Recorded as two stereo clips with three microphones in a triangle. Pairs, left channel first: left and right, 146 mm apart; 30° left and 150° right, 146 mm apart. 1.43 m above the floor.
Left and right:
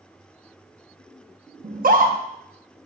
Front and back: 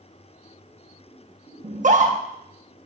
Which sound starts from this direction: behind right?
A scream, at 1.6 s.